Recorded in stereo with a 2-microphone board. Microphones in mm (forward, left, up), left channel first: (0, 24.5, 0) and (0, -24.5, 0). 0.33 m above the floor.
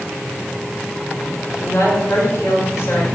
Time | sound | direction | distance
1.6 | a woman speaking | 70° left (ahead or behind) | 4 m